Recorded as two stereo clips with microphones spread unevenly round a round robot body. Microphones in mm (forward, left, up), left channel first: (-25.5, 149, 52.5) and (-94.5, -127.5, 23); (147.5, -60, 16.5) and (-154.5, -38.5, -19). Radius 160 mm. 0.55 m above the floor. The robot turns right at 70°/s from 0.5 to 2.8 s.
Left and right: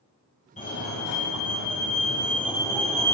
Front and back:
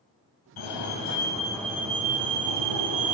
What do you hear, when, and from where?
0.6 s a fire alarm: 10° left, 6 m; by 3.1 s 165° left, 6 m